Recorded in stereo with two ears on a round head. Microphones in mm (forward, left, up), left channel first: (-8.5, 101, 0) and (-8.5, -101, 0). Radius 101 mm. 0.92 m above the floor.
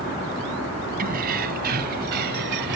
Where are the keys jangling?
40° right (ahead or behind); by 2.8 s 50° right (ahead or behind).